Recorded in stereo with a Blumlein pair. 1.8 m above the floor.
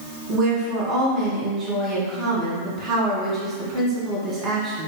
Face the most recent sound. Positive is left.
turn(degrees=-25)